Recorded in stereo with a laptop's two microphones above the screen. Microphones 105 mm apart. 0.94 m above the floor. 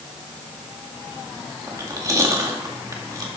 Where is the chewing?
35° right (ahead or behind), 2 m.